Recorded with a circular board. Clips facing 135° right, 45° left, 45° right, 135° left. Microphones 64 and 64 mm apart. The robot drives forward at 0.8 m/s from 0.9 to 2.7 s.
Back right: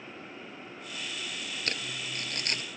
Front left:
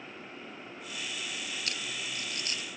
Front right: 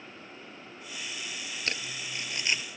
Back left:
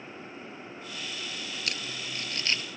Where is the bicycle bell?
No bicycle bell in this recording.